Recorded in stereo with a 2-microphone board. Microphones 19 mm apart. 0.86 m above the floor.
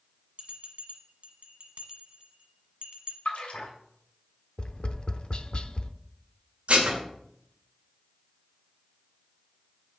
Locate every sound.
0.4 s a bell: 60° right (ahead or behind), 1.4 m
3.2 s a splash: 85° left, 2.5 m
4.6 s tapping: 55° left (ahead or behind), 0.6 m
6.7 s dishes clattering: 75° right (ahead or behind), 2 m